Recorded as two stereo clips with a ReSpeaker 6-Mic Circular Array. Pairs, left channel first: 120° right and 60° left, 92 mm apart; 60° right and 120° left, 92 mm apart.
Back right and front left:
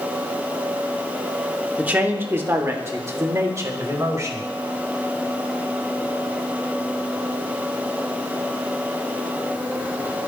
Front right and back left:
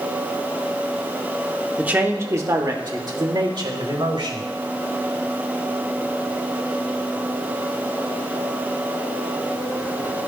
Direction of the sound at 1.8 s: 80° left.